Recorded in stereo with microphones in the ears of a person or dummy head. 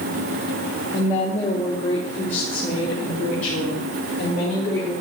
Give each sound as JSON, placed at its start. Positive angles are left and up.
{"t": 0.9, "sound": "a woman speaking", "side_deg": 25, "distance_m": 2.0}